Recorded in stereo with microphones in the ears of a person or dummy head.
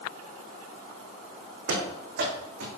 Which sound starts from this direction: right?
Running footsteps, at 1.7 s.